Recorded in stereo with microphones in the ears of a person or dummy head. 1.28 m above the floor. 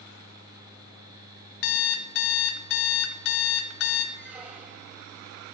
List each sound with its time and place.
1.6 s an alarm clock: 65° left (ahead or behind), 0.8 m
4.2 s a squeak: 5° right (ahead or behind), 1.1 m